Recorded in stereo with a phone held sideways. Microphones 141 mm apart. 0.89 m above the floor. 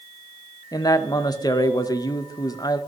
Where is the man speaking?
25° left (ahead or behind), 0.5 m.